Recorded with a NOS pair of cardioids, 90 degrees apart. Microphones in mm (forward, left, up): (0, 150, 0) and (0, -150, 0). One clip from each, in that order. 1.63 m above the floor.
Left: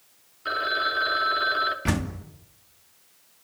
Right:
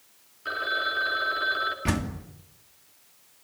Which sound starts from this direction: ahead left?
A phone ringing, at 0.5 s.